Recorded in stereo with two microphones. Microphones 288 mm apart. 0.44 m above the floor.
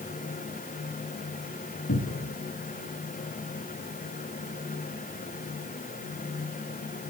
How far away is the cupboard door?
About 2.5 m.